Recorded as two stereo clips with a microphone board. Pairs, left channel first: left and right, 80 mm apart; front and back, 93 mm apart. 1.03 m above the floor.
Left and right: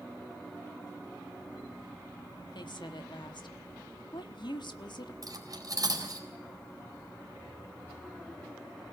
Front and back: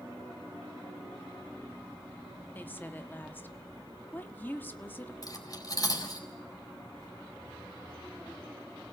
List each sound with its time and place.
2.5 s a woman speaking: 70° left, 1.5 m
5.2 s cutlery clinking: 50° right, 4 m